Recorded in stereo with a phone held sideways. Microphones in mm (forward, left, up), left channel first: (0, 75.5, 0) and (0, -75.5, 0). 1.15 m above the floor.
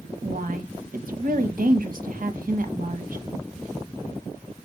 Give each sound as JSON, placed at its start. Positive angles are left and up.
{"t": 0.2, "sound": "a woman speaking", "side_deg": -70, "distance_m": 1.2}